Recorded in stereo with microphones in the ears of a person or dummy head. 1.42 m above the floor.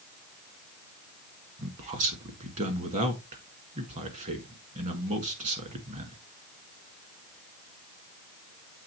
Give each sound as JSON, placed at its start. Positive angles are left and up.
{"t": 1.6, "sound": "a man speaking", "side_deg": -40, "distance_m": 1.7}